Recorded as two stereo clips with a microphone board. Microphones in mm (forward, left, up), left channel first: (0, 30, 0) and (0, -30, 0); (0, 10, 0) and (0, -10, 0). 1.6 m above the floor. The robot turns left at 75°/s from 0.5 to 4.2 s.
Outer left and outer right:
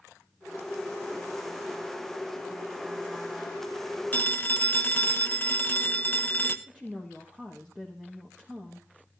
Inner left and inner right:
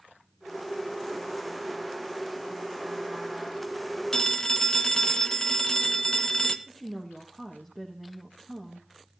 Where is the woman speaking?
25° right (ahead or behind), 1.9 m.